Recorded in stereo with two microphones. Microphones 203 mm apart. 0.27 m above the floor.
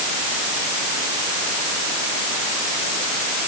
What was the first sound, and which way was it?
Only background noise.